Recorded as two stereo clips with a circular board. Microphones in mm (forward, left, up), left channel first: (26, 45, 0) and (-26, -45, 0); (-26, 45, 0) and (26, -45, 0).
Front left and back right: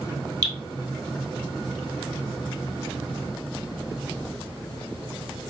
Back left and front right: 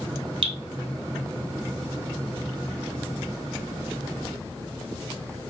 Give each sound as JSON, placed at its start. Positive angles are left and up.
{"t": 0.4, "sound": "dripping", "azimuth_deg": -75, "distance_m": 1.0}